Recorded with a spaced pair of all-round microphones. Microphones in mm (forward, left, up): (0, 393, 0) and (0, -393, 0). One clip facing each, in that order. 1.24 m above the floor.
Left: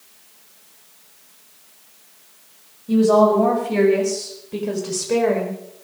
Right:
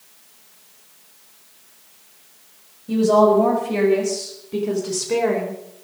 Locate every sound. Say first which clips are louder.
2.9 s a woman speaking: left 1 dB; centre (ahead or behind), 5 m; by 5.6 s 20° left (ahead or behind), 4 m